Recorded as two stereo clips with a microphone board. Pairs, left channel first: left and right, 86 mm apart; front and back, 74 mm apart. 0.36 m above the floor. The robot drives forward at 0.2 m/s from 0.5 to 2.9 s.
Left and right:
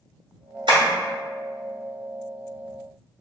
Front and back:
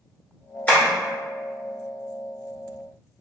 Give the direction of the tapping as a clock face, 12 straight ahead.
2 o'clock.